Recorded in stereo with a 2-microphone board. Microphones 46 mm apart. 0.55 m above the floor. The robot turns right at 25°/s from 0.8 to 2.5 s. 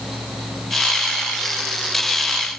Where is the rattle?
I don't hear a rattle.